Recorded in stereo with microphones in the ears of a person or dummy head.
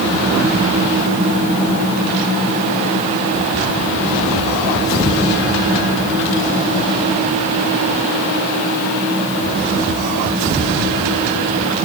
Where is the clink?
I don't hear a clink.